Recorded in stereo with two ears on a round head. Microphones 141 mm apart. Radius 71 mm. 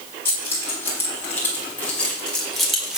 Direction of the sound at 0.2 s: 15° left (ahead or behind).